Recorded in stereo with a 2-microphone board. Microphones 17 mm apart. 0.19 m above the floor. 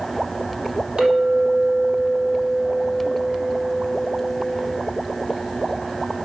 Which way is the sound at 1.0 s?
60° right (ahead or behind).